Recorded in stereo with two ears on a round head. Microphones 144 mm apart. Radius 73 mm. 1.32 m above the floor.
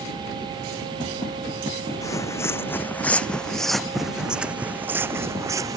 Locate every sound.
2.0 s footsteps: 20° left (ahead or behind); by 5.8 s 20° right (ahead or behind)